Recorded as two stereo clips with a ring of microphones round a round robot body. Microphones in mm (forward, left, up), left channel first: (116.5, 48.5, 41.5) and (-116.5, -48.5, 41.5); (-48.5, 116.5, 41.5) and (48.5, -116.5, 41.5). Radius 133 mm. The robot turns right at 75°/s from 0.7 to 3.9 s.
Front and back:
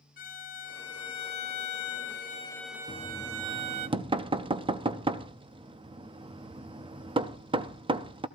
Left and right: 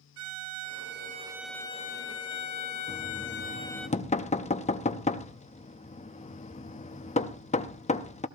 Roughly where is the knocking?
Left.